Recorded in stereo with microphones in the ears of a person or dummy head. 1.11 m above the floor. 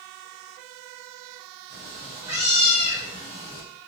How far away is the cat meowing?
About 1.1 m.